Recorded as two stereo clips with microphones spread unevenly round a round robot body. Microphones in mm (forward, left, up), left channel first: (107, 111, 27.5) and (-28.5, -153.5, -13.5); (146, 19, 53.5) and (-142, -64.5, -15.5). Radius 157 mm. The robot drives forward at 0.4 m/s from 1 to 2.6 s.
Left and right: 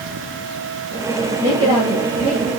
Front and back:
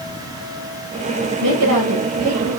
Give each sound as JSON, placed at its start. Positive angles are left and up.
{"t": 1.4, "sound": "a woman speaking", "azimuth_deg": 175, "distance_m": 1.4}